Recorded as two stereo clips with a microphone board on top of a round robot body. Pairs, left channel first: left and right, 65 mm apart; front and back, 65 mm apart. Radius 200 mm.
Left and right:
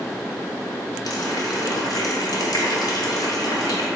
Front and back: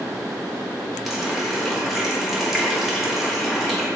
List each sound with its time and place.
1.1 s a running tap: 90° left, 1.4 m